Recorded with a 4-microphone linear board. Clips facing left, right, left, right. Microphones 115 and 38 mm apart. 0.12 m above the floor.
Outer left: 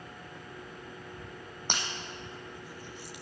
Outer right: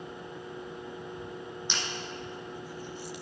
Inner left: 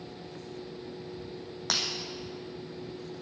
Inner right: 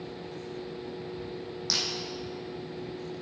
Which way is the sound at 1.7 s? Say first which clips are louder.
Outer left 3 dB, inner left 1 dB; 55° left (ahead or behind).